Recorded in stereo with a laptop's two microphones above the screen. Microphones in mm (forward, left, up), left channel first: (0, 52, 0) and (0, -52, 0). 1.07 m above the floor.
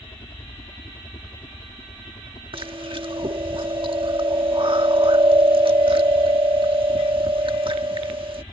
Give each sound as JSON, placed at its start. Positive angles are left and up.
{"t": 0.0, "sound": "a helicopter", "side_deg": 50}
{"t": 2.5, "sound": "chewing", "side_deg": -55}